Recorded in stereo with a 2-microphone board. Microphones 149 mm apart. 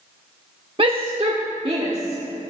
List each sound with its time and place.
0.8 s a shout: 35° right (ahead or behind), 0.8 m